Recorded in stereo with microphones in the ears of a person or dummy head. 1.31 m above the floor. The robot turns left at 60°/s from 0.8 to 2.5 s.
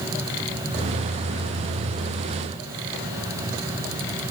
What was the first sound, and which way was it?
Only background noise.